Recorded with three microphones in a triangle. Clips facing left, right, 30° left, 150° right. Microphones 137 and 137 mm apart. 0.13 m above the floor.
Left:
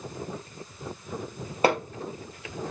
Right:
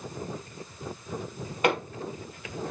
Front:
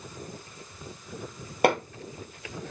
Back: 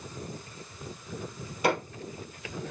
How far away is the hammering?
About 3 m.